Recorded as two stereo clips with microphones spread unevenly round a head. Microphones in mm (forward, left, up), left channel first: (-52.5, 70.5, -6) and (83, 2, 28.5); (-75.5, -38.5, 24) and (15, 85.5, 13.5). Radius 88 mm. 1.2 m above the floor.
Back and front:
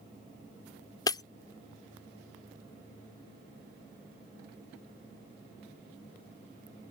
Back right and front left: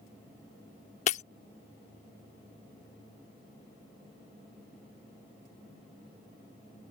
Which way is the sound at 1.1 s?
130° right.